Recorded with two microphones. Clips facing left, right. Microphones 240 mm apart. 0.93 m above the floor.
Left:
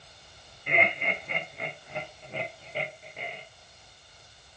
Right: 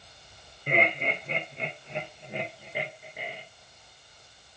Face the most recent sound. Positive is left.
turn(degrees=-5)  # may be behind; listen again after turning